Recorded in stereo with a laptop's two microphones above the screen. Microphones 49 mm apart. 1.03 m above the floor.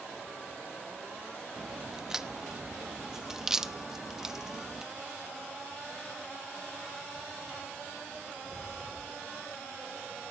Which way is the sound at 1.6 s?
10° right (ahead or behind).